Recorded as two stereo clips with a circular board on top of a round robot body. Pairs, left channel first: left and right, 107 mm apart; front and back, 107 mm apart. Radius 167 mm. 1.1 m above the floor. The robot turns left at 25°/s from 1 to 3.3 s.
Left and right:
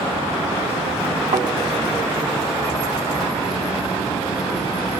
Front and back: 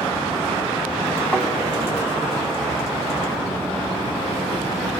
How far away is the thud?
About 2.5 m.